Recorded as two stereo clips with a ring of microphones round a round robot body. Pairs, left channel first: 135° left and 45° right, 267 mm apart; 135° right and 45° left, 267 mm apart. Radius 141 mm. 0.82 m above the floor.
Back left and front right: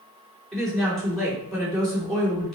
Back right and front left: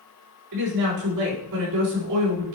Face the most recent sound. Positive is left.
turn(degrees=45)